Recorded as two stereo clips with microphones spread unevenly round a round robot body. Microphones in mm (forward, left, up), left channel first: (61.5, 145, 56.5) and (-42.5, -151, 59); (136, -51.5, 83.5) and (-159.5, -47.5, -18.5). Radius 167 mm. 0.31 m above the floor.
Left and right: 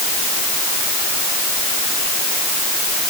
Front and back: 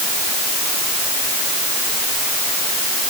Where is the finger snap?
No finger snap in this recording.